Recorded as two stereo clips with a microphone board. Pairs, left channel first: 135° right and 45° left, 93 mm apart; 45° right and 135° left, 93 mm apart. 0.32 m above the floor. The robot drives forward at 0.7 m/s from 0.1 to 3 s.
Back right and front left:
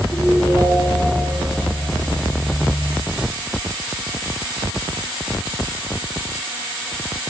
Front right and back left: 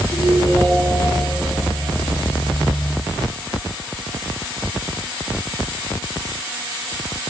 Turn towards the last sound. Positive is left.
turn(degrees=100)